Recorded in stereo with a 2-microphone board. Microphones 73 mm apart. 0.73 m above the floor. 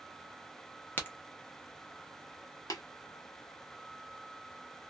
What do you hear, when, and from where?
1.0 s a crack: 25° left (ahead or behind), 0.8 m
2.7 s tapping: 55° left (ahead or behind), 0.7 m